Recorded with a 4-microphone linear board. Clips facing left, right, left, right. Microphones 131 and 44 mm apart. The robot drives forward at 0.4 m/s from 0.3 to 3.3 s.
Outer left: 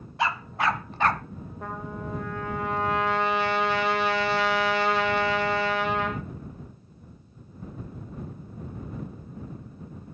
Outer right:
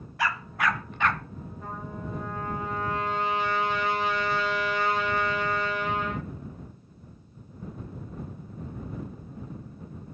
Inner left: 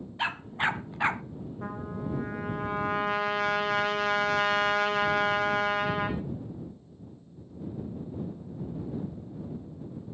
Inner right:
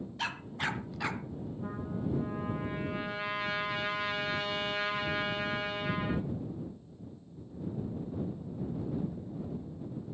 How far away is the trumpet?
About 3.5 m.